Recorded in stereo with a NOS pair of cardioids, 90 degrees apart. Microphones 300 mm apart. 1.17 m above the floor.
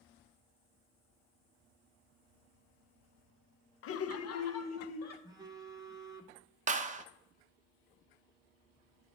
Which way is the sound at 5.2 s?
15° right.